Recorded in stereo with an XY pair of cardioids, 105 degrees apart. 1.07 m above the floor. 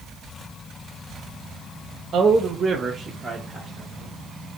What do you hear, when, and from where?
2.1 s a man speaking: 55° right, 0.7 m; by 4.1 s 5° right, 1.4 m